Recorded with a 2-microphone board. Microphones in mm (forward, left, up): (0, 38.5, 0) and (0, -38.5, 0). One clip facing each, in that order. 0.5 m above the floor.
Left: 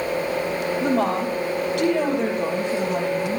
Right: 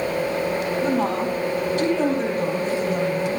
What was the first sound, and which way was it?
A woman speaking, 80° left.